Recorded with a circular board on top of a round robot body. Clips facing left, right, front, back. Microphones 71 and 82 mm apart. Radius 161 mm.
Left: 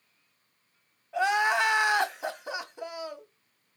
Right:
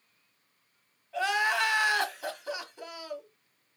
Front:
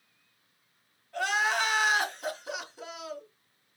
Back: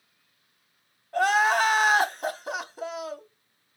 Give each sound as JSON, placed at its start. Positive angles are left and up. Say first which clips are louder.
{"t": 1.1, "sound": "crying", "louder": "left 3 dB, back 7 dB", "azimuth_deg": 150, "distance_m": 1.2}